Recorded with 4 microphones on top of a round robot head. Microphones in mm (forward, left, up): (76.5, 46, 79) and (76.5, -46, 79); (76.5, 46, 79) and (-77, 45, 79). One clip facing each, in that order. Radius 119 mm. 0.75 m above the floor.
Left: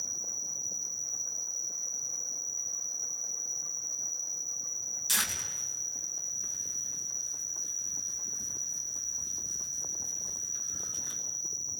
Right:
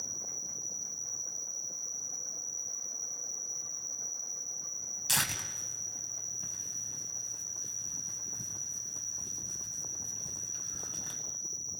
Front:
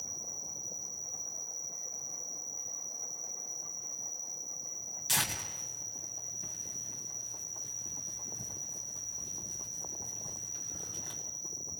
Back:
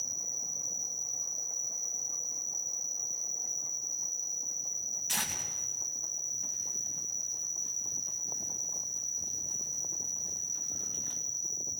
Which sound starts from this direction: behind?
An insect, at 0.0 s.